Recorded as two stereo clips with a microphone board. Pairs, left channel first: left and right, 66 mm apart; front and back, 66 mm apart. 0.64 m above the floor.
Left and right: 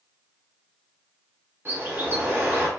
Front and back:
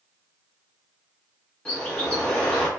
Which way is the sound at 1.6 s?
65° right.